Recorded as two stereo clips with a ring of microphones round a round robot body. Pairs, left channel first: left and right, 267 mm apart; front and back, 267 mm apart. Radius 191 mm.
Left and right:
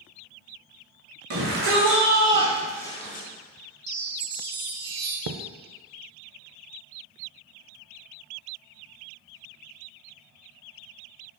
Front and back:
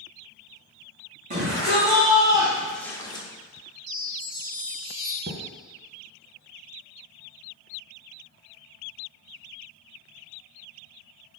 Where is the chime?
125° right, 1.7 m.